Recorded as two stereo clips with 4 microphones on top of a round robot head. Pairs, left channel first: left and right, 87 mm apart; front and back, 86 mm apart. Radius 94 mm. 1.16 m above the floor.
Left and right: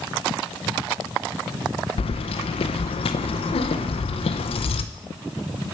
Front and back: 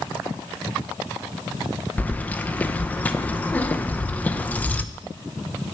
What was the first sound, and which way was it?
Keys jangling, 75° left.